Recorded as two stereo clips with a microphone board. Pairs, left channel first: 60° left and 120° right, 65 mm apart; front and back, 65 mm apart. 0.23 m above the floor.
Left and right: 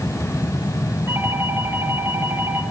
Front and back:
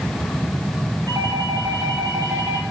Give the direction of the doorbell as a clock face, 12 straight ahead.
6 o'clock.